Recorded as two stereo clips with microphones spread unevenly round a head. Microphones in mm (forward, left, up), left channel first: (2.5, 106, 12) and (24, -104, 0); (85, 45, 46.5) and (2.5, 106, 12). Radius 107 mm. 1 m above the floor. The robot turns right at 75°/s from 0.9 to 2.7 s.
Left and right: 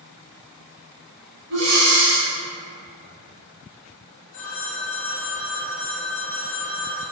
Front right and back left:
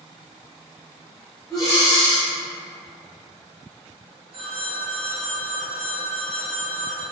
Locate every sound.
1.5 s breathing: 100° right, 1.0 m; by 2.3 s 40° right, 1.0 m
4.3 s a phone ringing: 110° left, 0.8 m